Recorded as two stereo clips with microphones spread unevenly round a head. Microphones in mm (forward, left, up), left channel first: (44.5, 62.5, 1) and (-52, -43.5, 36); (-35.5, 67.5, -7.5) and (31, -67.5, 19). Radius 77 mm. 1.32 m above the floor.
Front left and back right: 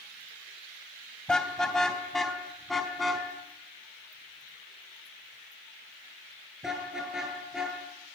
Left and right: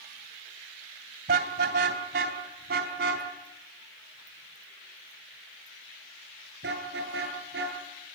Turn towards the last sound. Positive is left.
turn(degrees=-45)